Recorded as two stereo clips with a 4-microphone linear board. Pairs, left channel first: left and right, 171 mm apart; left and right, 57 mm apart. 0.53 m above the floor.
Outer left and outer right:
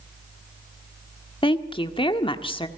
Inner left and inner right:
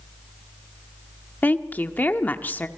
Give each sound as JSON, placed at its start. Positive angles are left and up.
{"t": 1.4, "sound": "a woman speaking", "side_deg": 30, "distance_m": 1.5}